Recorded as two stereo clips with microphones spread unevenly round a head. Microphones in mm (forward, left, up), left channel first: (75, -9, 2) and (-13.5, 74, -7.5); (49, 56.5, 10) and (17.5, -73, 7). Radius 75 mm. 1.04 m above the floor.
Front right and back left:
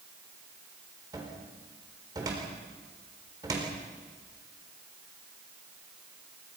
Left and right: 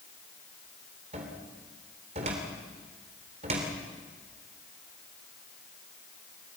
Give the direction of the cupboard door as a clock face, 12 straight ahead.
5 o'clock.